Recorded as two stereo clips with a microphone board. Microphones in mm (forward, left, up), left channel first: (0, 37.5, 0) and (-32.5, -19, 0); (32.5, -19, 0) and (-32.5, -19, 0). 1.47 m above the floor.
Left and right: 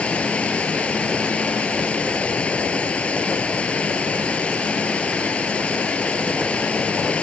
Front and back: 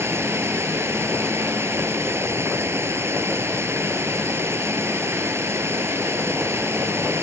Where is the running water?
135° left.